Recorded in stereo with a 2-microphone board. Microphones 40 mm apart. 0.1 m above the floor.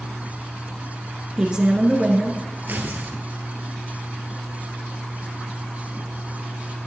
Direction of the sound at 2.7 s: 50° right (ahead or behind).